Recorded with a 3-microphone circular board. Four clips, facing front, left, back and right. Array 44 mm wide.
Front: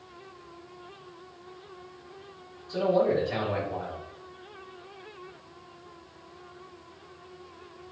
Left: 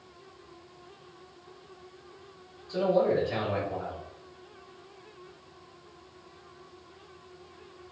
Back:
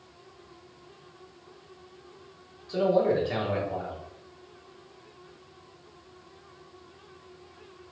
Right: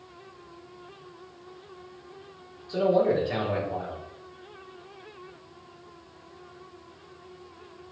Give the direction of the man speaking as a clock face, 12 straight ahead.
5 o'clock.